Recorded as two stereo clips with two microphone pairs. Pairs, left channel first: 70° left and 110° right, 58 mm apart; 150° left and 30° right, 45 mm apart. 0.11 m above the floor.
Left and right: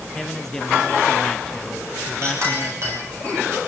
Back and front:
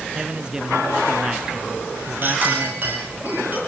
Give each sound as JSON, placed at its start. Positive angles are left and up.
{"t": 0.1, "sound": "a man speaking", "azimuth_deg": 0, "distance_m": 1.1}
{"t": 2.2, "sound": "a clink", "azimuth_deg": -80, "distance_m": 8.5}